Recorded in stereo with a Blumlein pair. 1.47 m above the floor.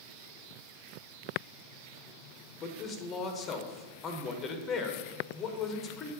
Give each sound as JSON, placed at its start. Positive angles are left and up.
{"t": 2.6, "sound": "a man speaking", "azimuth_deg": 20, "distance_m": 1.2}